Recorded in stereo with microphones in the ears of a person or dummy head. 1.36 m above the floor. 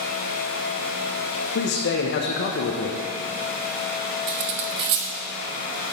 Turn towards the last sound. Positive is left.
turn(degrees=-55)  # may be behind; listen again after turning